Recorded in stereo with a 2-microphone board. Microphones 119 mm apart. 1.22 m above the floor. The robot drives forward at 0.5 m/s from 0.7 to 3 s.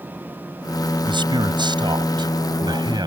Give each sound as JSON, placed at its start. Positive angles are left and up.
{"t": 1.0, "sound": "a man speaking", "side_deg": -40}